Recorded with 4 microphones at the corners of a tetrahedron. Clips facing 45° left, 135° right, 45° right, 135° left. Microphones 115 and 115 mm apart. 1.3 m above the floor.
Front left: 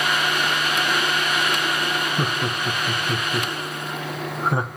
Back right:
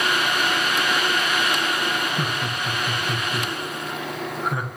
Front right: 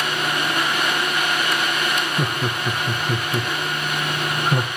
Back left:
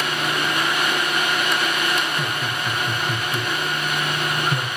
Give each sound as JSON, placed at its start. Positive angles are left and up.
{"t": 2.2, "sound": "laughter", "azimuth_deg": -10, "distance_m": 1.2}